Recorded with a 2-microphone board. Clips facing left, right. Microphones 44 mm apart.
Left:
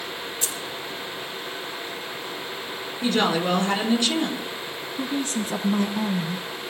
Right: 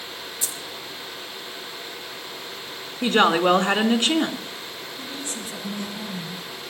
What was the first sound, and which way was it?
Keys jangling, 60° left (ahead or behind).